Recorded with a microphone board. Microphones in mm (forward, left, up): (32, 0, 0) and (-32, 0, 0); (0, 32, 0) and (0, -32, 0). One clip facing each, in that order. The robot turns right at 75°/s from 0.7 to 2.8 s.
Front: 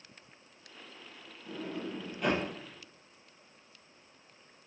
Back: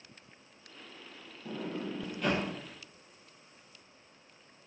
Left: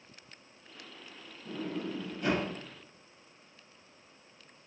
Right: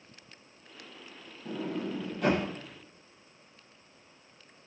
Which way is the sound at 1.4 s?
145° right.